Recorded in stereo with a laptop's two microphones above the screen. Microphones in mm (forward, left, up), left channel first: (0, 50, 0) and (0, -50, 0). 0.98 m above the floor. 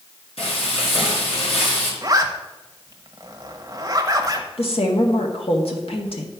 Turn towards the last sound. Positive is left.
turn(degrees=70)  # may be behind; listen again after turning